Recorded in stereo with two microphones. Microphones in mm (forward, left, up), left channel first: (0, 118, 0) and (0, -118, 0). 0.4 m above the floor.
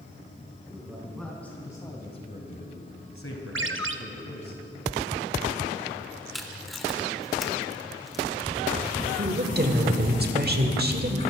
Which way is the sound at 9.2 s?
40° right (ahead or behind).